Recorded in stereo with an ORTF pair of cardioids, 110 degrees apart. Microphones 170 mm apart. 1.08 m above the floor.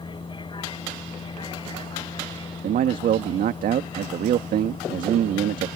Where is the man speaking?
55° right.